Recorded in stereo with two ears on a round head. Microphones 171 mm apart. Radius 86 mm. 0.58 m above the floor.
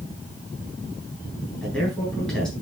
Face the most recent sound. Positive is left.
turn(degrees=5)  # may be behind; listen again after turning